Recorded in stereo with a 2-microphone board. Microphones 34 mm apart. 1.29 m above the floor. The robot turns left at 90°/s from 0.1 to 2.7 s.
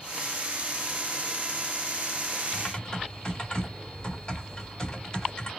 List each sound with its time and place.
2.5 s typing on a keyboard: 30° left (ahead or behind), 1.0 m; by 5.5 s 25° left (ahead or behind), 1.0 m